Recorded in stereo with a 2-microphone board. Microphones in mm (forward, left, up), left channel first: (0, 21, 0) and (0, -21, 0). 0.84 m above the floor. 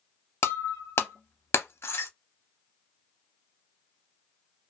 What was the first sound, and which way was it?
Breaking glass, 70° left (ahead or behind).